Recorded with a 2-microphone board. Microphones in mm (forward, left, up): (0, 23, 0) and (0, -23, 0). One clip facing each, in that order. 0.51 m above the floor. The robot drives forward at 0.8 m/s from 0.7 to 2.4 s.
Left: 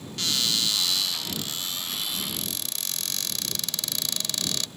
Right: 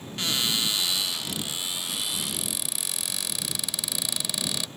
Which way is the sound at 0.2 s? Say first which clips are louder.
Even; 20° right (ahead or behind).